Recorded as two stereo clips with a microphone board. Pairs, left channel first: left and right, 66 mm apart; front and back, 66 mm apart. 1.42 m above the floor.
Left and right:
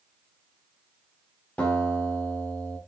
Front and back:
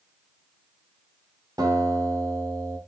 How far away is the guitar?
About 3.5 m.